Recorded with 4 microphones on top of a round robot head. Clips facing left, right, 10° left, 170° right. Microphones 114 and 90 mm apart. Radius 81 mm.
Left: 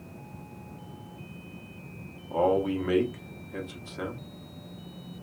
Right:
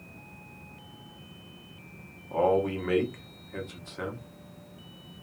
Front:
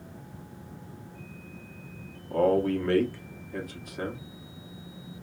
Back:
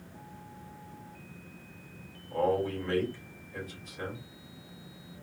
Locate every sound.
2.3 s a man speaking: 10° left, 0.8 m